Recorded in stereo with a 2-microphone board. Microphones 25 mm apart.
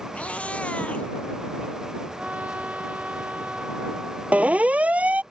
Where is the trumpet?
60° right (ahead or behind).